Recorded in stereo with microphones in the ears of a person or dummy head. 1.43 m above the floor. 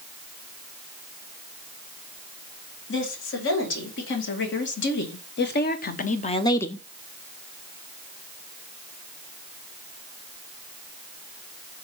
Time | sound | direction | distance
2.9 | a woman speaking | 65° left (ahead or behind) | 3 m